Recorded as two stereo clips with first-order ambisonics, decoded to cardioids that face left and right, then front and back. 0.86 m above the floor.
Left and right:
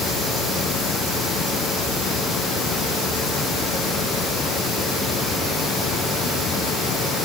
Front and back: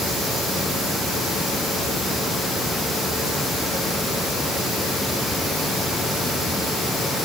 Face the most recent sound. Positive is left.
No sound to turn to.